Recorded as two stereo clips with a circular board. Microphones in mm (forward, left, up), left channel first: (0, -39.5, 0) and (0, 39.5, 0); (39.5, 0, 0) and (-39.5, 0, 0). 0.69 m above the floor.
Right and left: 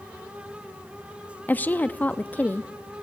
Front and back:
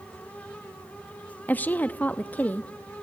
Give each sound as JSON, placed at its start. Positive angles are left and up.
{"t": 1.5, "sound": "a woman speaking", "azimuth_deg": -45, "distance_m": 0.6}